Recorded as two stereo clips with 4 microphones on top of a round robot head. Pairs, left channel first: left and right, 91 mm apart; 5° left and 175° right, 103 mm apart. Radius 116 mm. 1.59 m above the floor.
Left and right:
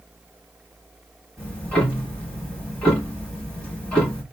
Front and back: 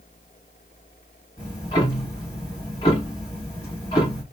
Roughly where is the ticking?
Ahead.